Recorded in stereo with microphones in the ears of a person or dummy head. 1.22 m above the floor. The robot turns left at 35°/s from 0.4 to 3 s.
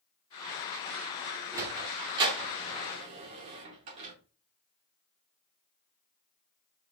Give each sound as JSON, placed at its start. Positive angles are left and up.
{"t": 1.5, "sound": "a sliding door", "side_deg": -15, "distance_m": 0.8}